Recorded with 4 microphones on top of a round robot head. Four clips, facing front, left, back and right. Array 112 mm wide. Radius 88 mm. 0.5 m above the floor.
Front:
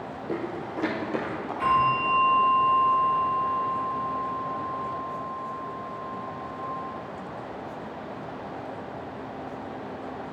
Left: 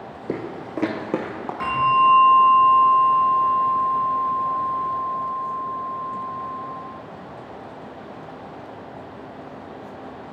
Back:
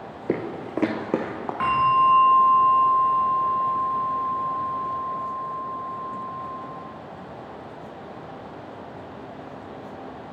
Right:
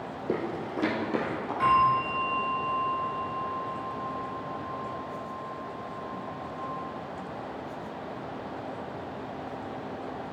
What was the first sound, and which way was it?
Footsteps, 165° left.